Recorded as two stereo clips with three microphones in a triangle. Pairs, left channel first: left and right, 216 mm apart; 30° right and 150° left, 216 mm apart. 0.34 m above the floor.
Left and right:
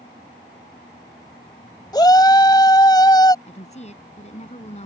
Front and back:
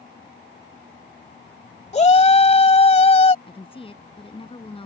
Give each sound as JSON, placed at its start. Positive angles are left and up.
{"t": 1.9, "sound": "a shout", "azimuth_deg": 20}
{"t": 3.5, "sound": "a woman speaking", "azimuth_deg": 35}